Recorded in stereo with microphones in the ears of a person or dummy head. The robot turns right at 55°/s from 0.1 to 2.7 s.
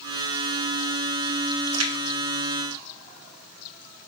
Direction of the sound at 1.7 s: 80° right.